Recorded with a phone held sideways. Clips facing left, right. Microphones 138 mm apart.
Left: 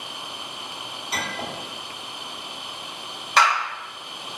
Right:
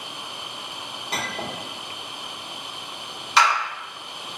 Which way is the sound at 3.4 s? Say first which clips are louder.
Even; 55° left (ahead or behind).